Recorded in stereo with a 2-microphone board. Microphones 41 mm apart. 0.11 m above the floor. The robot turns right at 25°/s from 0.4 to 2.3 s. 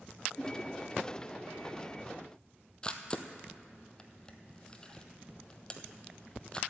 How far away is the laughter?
About 2.5 m.